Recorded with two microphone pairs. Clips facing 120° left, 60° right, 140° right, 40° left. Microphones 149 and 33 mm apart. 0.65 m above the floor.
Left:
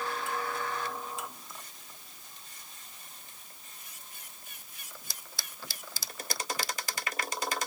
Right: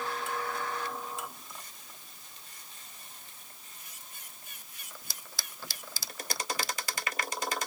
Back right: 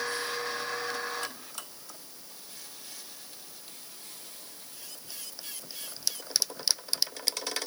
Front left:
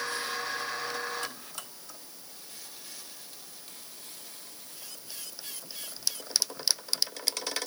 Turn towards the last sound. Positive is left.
No sound to turn to.